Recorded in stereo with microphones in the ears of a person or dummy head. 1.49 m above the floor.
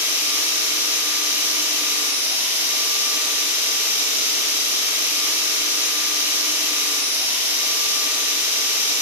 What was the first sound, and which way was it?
A machine running, 15° right (ahead or behind).